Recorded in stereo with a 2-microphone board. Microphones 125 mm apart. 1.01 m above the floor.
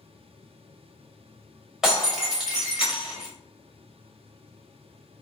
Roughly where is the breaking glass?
Centre.